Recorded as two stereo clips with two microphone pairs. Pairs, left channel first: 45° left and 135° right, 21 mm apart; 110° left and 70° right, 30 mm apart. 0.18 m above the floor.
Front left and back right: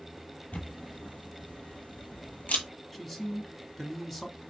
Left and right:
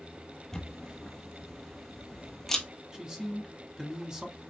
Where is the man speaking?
35° right, 1.3 m.